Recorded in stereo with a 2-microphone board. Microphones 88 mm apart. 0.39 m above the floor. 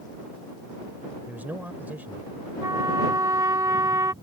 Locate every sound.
1.3 s a man speaking: 20° right (ahead or behind)
2.6 s a trumpet: 40° right (ahead or behind)